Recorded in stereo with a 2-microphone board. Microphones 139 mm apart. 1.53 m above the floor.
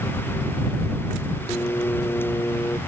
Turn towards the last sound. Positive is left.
turn(degrees=20)  # may be behind; listen again after turning